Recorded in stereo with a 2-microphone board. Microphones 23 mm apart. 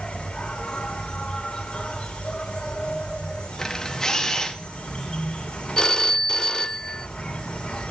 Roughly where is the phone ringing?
Left.